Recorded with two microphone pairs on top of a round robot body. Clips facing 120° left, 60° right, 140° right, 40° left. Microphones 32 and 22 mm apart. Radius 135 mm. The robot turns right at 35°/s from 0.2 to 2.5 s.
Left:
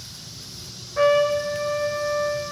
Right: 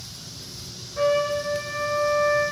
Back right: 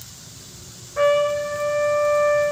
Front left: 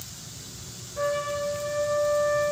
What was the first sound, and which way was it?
A trumpet, 175° right.